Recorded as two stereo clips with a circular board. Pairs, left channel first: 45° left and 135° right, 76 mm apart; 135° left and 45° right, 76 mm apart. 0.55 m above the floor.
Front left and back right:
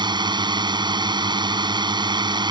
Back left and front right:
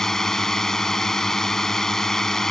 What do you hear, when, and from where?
0.0 s a drone: 140° right